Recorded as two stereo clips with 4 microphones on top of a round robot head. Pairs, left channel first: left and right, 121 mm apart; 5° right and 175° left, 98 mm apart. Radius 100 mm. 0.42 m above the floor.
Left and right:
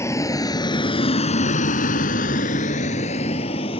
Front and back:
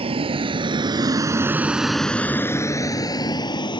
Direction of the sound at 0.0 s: 155° left.